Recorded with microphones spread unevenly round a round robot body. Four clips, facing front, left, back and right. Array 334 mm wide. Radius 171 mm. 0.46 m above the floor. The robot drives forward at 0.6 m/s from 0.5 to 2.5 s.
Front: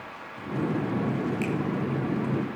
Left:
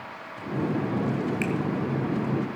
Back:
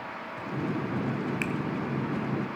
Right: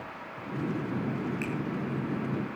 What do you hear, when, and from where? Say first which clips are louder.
1.4 s a finger snap: left 6 dB, front 3 dB; 150° left, 4 m